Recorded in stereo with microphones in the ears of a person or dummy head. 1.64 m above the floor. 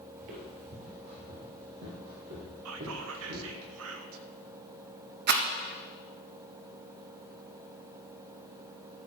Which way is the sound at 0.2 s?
45° right (ahead or behind).